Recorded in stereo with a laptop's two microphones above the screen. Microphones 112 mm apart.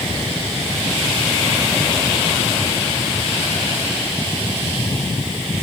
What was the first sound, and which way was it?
Only background noise.